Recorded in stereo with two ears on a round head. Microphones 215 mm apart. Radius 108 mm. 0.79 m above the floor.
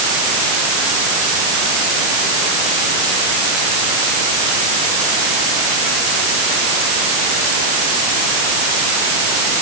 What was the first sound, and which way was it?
Only background noise.